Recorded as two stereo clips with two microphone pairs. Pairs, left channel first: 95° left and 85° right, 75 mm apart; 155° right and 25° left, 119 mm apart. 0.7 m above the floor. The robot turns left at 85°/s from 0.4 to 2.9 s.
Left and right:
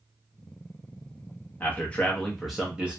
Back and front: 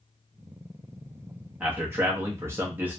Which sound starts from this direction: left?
A man speaking, at 1.6 s.